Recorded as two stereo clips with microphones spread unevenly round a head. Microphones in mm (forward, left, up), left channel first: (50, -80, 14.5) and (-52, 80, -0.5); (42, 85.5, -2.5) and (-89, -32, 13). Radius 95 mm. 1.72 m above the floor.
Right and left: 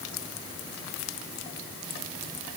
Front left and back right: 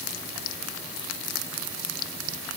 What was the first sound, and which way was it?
Only background noise.